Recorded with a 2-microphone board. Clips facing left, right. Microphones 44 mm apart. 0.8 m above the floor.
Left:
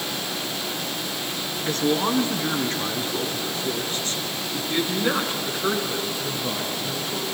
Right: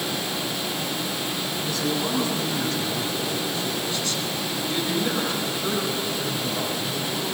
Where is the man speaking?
50° left (ahead or behind), 6 m; by 7.2 s 30° left (ahead or behind), 8.5 m.